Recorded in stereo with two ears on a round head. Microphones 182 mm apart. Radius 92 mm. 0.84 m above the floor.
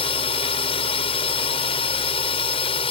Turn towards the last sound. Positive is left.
turn(degrees=25)  # may be behind; listen again after turning